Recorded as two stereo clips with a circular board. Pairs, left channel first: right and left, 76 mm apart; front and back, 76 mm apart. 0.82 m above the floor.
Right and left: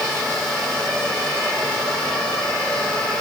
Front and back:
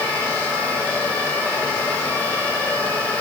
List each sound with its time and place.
Only background noise.